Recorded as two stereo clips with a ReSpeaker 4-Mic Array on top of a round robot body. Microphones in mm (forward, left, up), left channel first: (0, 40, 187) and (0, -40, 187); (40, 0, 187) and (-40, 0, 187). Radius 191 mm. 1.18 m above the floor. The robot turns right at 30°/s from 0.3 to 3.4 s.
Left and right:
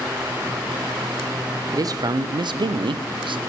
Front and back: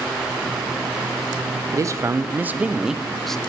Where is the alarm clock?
No alarm clock in this recording.